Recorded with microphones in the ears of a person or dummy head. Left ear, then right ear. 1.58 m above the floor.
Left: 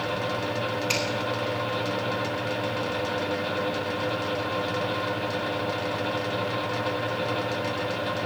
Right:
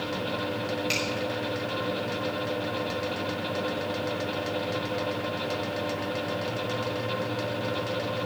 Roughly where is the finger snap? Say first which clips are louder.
Left 2 dB; centre.